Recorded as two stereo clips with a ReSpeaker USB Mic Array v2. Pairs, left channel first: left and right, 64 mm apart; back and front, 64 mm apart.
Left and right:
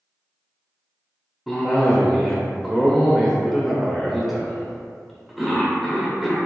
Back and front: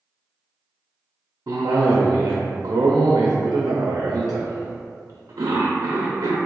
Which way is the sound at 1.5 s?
5° right.